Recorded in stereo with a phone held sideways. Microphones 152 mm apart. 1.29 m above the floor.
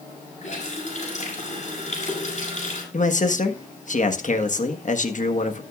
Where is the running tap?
50° left (ahead or behind), 7 m.